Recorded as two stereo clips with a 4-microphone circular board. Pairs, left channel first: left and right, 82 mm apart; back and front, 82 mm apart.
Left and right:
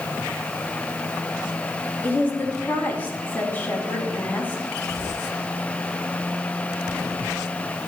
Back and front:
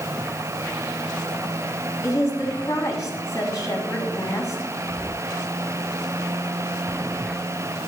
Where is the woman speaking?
150° left, 2.5 m.